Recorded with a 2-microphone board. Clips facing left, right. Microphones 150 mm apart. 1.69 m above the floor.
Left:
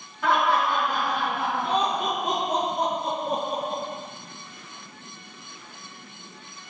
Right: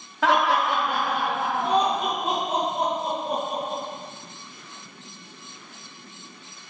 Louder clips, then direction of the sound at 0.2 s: Right 1 dB; 75° right (ahead or behind).